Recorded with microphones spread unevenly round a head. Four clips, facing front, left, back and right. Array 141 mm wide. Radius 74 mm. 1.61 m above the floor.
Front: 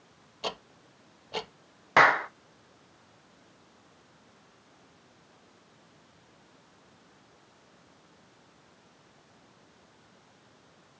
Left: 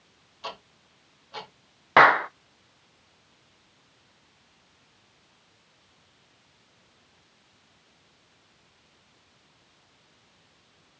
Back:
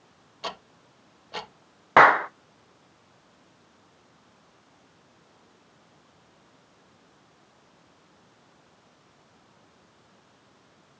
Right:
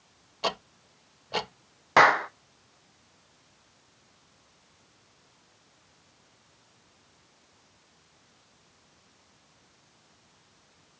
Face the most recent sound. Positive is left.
turn(degrees=160)